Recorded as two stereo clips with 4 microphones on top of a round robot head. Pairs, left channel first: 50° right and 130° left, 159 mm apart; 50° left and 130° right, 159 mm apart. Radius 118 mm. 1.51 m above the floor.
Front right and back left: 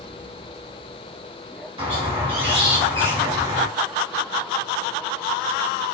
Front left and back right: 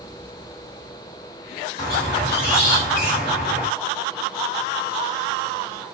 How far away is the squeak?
About 1.4 m.